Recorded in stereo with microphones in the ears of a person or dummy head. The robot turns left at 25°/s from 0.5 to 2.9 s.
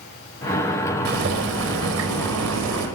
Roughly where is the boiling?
Ahead right.